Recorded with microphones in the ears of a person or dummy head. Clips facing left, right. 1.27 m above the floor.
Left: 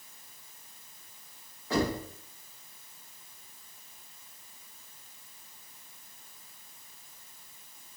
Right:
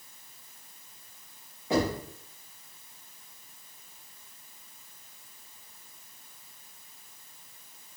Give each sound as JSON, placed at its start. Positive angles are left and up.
{"t": 1.7, "sound": "knocking", "side_deg": -15, "distance_m": 1.1}